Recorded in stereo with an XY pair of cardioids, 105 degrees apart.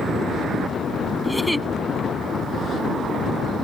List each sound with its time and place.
1.2 s a giggle: straight ahead